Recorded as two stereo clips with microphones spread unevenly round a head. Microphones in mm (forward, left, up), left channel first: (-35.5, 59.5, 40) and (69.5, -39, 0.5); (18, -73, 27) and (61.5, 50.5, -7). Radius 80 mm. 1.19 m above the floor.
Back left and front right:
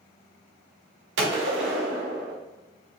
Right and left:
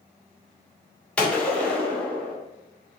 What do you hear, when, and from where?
1.2 s a gunshot: 40° right, 0.8 m